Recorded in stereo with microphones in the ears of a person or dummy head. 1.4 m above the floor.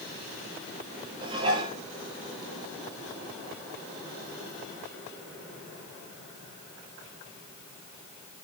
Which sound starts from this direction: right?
Dishes clattering, at 1.2 s.